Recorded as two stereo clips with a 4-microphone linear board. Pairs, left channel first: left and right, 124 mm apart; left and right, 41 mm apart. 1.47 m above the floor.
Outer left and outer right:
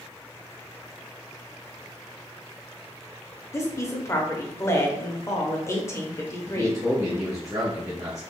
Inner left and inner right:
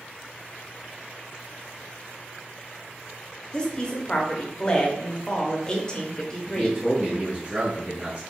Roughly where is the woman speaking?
Left.